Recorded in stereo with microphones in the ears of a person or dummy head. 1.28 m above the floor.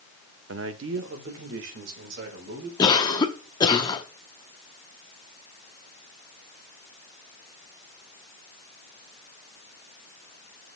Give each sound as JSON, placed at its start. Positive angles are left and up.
{"t": 0.5, "sound": "a man speaking", "side_deg": -70, "distance_m": 0.8}
{"t": 2.8, "sound": "a cough", "side_deg": 20, "distance_m": 0.9}